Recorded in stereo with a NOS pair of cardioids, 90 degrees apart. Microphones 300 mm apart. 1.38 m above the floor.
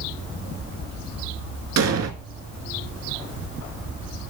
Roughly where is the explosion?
Ahead right.